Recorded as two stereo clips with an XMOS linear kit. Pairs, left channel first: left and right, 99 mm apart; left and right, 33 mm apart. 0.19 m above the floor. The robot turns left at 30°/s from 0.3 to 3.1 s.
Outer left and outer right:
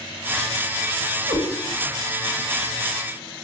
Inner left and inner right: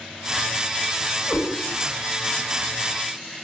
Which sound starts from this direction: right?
A cat meowing, at 1.3 s.